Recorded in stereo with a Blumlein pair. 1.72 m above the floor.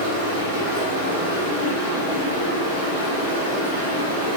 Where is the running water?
55° left, 1.2 m.